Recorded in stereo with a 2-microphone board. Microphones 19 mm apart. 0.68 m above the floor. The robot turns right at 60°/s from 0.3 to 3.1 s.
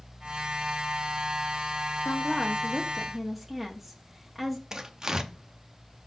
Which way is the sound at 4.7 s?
35° right (ahead or behind).